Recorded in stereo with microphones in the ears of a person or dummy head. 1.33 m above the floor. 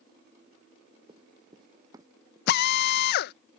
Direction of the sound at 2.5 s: 60° left (ahead or behind).